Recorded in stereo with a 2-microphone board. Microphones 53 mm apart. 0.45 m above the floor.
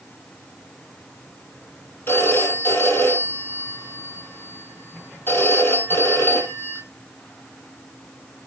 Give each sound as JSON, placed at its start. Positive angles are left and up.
{"t": 2.1, "sound": "a phone ringing", "side_deg": 45, "distance_m": 8.0}